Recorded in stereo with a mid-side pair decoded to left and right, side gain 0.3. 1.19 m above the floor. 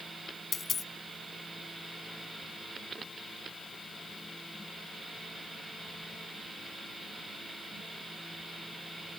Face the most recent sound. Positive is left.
turn(degrees=65)